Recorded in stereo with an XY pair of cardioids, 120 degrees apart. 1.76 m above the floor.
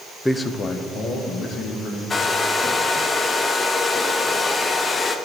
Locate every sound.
0.2 s a man speaking: 10° left, 0.6 m; by 2.0 s 55° left, 2.5 m
2.1 s a hair dryer: 30° left, 0.8 m